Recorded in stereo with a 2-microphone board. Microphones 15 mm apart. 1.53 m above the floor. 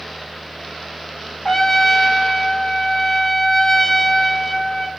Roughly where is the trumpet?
Left.